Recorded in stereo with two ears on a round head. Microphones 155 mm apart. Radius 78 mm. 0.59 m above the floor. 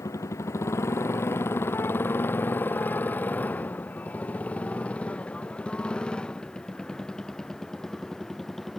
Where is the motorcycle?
15° left (ahead or behind); by 8.8 s centre (ahead or behind).